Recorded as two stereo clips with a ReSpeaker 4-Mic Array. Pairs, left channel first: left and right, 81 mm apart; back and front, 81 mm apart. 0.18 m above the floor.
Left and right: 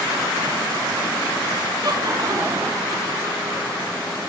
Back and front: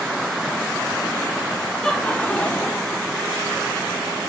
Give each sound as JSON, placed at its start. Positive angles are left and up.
{"t": 1.8, "sound": "laughter", "azimuth_deg": -100, "distance_m": 3.0}